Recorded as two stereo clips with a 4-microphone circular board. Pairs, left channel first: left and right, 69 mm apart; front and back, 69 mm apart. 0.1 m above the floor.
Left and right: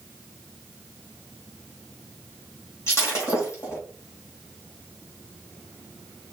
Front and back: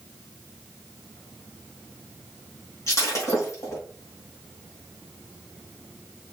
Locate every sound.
2.9 s breaking glass: 40° left, 3.5 m